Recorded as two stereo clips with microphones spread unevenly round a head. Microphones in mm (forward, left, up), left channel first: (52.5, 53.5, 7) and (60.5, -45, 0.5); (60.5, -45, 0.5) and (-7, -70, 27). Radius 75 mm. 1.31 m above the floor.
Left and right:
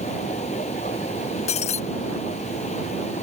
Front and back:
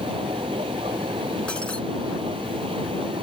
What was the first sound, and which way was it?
A machine running, 145° left.